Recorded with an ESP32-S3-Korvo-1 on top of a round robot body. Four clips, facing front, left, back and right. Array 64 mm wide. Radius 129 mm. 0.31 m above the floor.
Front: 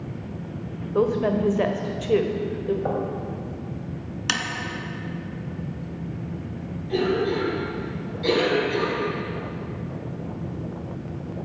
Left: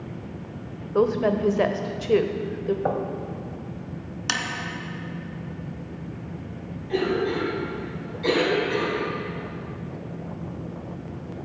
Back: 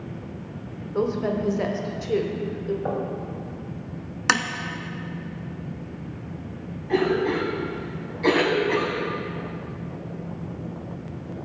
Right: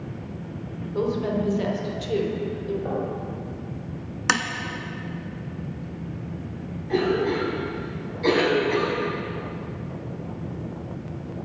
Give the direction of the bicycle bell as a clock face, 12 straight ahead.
I don't hear a bicycle bell.